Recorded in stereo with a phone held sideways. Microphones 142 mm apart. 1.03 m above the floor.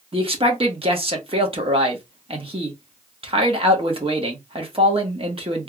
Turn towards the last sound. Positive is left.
turn(degrees=-40)  # may be behind; listen again after turning